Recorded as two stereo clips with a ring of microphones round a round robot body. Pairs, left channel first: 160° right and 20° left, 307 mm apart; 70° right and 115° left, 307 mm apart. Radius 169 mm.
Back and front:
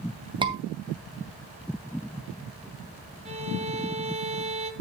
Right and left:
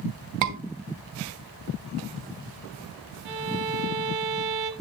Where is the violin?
90° left, 1.6 m.